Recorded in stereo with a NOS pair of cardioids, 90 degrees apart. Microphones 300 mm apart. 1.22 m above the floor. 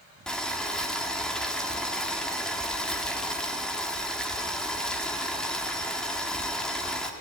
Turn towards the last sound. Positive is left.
turn(degrees=0)